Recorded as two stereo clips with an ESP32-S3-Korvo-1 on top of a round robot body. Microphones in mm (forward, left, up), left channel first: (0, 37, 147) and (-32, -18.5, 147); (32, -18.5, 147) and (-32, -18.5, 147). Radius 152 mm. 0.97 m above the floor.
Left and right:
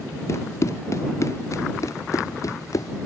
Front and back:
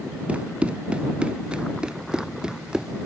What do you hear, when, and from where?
0.3 s running footsteps: 105° left; by 2.9 s 100° left